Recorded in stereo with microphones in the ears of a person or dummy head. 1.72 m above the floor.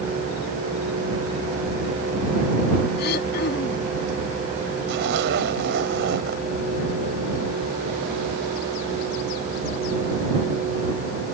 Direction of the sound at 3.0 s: 65° left (ahead or behind).